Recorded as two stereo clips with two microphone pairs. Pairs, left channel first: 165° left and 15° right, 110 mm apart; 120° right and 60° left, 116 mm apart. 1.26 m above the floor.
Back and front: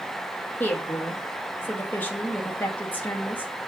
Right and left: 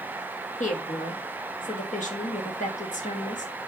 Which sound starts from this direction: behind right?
A woman speaking, at 0.6 s.